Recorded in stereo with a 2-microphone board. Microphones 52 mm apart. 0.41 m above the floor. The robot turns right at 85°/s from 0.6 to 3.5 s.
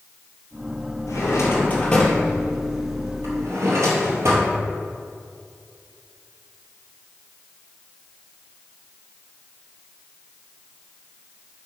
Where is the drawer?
85° left, 2.5 m; by 4.5 s 60° right (ahead or behind), 2.5 m.